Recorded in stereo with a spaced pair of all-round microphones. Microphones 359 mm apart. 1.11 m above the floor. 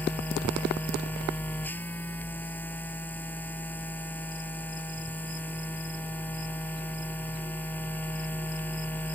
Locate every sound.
0.0 s a machine running: 5° left (ahead or behind)